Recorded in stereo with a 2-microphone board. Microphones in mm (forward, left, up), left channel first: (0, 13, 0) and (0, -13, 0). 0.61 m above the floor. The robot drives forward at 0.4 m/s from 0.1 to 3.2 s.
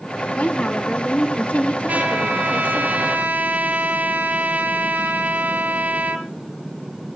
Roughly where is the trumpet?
Right.